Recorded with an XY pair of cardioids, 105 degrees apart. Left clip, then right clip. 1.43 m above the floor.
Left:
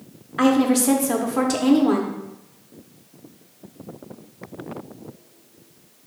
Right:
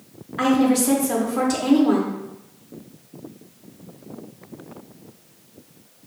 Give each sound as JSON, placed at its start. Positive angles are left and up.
{"t": 0.4, "sound": "a woman speaking", "azimuth_deg": 25, "distance_m": 0.6}